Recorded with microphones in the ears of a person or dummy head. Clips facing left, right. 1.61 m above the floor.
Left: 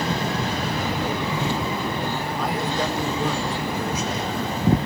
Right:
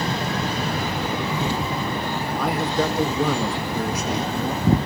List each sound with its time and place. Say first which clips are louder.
2.4 s a man speaking: right 3 dB; 45° right (ahead or behind), 1.8 m